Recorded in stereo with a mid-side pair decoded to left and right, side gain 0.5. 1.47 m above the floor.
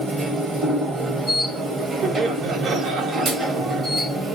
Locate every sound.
0.0 s a machine running: 45° right, 1.0 m
2.0 s laughter: 55° right, 0.8 m